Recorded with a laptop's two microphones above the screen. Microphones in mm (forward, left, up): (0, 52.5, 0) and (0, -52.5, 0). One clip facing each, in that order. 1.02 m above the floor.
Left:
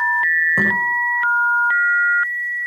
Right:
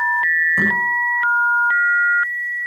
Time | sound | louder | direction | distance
0.6 | a thud | even | 45° left (ahead or behind) | 7.5 m